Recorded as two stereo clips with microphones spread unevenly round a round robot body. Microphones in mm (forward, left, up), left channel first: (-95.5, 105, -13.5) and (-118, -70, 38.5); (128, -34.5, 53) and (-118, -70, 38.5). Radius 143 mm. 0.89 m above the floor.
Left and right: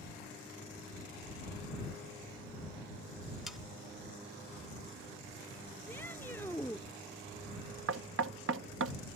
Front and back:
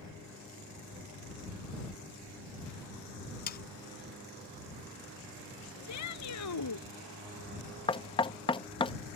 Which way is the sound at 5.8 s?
Straight ahead.